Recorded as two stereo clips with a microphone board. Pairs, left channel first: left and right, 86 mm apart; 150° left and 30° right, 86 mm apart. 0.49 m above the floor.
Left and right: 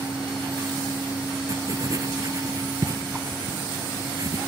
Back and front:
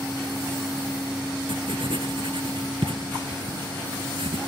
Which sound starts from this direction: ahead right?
Writing, at 1.5 s.